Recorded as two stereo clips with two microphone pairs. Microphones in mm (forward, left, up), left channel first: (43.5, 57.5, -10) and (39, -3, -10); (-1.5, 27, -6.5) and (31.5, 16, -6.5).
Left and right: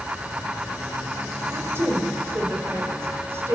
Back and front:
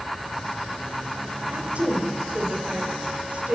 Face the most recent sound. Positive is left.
turn(degrees=-55)